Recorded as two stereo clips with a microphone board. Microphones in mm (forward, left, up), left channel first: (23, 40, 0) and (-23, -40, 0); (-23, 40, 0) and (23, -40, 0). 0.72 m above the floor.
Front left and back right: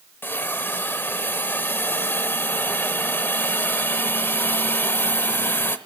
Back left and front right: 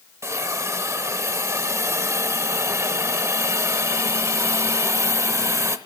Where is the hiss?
5° right, 0.8 m.